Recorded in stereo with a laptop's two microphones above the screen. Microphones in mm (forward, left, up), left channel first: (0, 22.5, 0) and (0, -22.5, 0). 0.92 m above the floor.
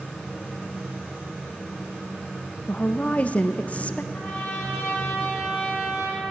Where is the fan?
5° right (ahead or behind), 1.7 m.